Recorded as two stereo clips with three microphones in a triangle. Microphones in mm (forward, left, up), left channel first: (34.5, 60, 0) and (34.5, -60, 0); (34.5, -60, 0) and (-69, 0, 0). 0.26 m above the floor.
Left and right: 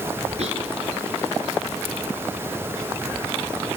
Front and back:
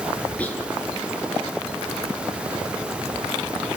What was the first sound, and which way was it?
Whispering, 110° right.